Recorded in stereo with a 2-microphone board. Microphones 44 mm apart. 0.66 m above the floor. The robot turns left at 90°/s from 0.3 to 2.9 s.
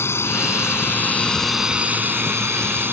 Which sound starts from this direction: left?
A drone, at 0.0 s.